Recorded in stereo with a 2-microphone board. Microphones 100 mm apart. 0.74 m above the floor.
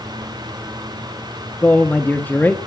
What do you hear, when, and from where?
1.6 s a man speaking: 15° left (ahead or behind), 1.1 m